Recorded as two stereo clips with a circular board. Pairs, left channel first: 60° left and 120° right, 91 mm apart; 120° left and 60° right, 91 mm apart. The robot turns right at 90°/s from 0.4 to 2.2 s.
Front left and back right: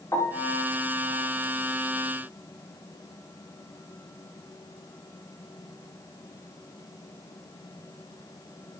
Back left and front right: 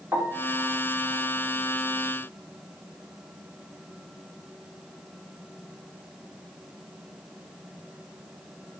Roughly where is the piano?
Ahead.